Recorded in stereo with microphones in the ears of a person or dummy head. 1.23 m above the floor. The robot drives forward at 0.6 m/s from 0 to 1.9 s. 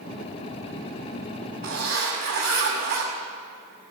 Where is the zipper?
55° right (ahead or behind), 6 m; by 3.1 s 50° right (ahead or behind), 6 m.